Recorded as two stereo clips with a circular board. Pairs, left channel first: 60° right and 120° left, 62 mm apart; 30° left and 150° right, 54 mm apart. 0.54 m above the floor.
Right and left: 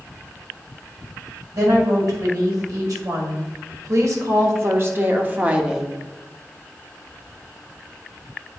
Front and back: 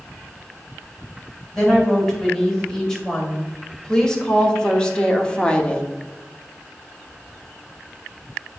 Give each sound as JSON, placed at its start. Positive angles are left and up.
{"t": 1.5, "sound": "a woman speaking", "azimuth_deg": 110, "distance_m": 3.0}